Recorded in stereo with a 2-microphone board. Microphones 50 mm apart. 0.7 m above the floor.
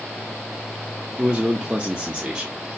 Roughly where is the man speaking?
Right.